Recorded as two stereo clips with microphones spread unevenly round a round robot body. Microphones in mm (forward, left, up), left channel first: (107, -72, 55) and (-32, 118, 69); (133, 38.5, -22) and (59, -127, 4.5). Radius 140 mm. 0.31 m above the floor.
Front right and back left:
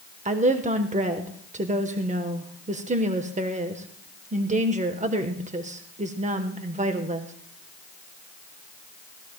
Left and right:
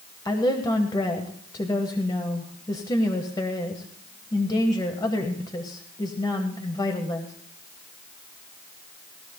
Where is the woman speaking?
95° left, 1.1 m.